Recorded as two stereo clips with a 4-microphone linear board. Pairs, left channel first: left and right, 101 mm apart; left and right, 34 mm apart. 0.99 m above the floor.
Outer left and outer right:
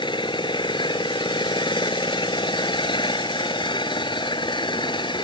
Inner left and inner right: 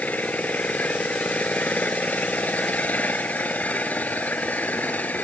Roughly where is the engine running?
Left.